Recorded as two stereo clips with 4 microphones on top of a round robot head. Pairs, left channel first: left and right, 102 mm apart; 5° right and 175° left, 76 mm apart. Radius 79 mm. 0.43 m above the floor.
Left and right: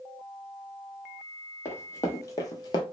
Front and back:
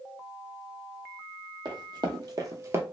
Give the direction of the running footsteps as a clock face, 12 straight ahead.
7 o'clock.